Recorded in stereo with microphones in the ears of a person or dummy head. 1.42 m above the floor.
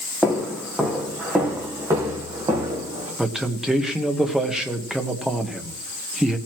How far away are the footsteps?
About 4 m.